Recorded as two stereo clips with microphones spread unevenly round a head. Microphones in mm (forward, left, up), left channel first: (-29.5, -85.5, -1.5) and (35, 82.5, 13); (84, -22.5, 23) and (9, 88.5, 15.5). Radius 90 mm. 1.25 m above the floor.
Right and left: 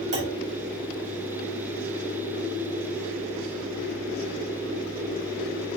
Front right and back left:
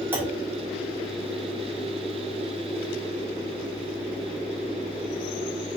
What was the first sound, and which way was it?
A clunk, 50° left.